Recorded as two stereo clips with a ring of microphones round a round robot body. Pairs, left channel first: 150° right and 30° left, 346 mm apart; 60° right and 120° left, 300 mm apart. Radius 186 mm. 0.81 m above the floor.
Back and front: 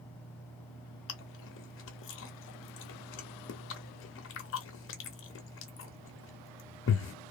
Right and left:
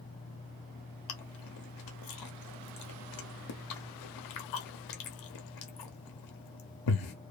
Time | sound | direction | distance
1.1 | chewing | 95° right | 0.6 m